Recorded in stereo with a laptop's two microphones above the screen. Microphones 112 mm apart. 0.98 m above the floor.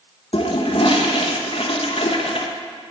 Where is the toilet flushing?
60° left (ahead or behind), 0.9 m.